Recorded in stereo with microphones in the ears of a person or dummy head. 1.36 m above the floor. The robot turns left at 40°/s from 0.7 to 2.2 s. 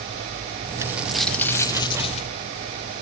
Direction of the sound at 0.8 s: 165° right.